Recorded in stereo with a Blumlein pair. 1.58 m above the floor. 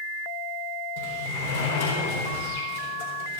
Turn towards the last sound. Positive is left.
turn(degrees=55)